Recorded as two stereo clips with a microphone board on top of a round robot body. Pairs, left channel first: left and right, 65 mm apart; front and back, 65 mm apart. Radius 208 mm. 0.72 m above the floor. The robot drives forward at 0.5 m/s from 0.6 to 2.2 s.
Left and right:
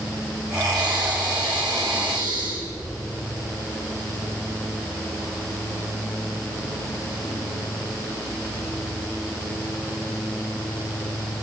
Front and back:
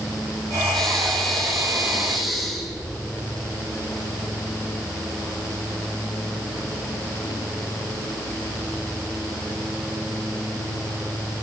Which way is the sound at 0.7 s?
85° right.